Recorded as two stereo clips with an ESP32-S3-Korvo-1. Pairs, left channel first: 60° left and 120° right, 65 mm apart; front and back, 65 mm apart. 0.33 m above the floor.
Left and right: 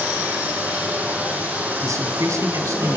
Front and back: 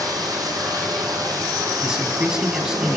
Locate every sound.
0.0 s running water: 175° left, 6 m
1.8 s a man speaking: 100° right, 3 m